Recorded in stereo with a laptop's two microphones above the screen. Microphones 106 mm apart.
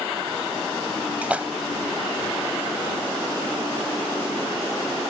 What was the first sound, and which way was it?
A splash, 15° right (ahead or behind).